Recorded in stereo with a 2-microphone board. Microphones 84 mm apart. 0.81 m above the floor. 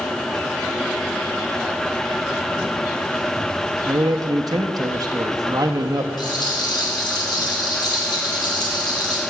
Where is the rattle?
60° left (ahead or behind), 3 m.